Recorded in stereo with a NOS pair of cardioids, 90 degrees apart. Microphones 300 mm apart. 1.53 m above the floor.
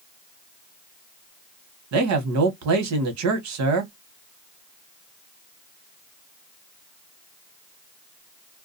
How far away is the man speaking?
About 1.0 m.